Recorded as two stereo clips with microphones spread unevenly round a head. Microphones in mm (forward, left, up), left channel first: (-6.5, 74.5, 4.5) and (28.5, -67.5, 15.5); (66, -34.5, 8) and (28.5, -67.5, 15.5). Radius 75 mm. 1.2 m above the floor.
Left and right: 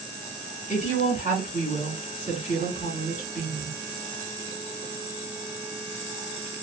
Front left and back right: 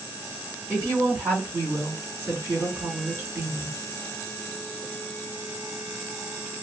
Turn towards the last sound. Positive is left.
turn(degrees=150)